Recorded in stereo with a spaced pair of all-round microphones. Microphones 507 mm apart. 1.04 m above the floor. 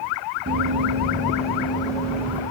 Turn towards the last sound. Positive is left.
turn(degrees=-5)  # may be behind; listen again after turning